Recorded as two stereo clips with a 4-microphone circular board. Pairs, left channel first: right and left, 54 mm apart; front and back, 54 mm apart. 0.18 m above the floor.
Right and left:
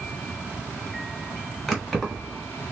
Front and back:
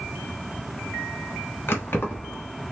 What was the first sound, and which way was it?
Keys jangling, 5° right.